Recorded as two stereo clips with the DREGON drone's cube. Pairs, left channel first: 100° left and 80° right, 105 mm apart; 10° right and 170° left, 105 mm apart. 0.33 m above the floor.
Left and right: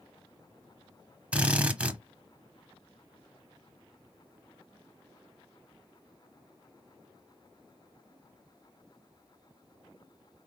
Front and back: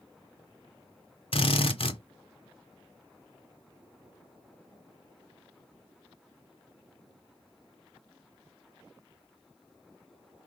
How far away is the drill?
About 1.0 m.